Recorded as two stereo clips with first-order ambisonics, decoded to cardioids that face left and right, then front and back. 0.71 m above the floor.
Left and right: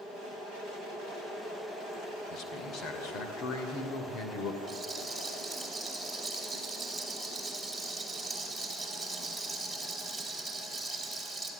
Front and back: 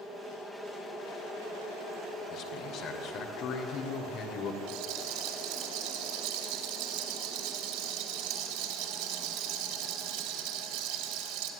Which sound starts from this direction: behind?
A rattle, at 4.7 s.